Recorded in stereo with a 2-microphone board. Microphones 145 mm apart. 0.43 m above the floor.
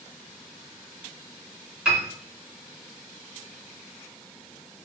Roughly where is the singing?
No singing in this recording.